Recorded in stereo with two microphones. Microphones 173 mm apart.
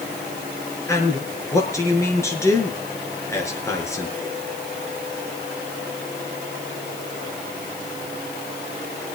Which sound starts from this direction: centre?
A man speaking, at 0.9 s.